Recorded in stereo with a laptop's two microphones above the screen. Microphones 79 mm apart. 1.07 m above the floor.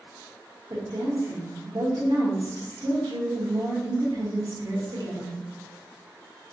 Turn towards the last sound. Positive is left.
turn(degrees=-65)  # may be behind; listen again after turning